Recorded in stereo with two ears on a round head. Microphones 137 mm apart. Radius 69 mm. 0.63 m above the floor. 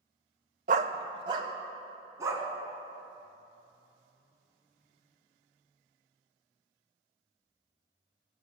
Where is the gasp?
No gasp in this recording.